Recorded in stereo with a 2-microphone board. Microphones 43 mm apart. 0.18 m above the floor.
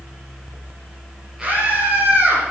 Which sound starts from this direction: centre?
A scream, at 1.4 s.